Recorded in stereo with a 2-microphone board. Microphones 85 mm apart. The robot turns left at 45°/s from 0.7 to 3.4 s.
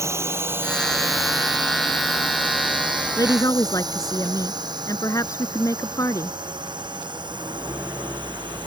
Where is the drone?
35° right (ahead or behind); by 8.7 s 70° right (ahead or behind).